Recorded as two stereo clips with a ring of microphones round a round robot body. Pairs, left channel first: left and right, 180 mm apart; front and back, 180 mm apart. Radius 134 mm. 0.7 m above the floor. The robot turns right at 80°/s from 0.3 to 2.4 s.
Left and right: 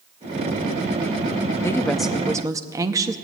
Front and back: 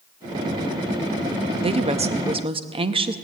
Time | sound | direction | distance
1.6 | a woman speaking | 150° left | 0.6 m